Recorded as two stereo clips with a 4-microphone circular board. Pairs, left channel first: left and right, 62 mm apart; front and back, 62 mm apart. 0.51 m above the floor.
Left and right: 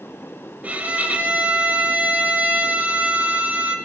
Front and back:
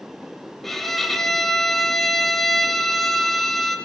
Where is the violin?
80° right, 1.0 m.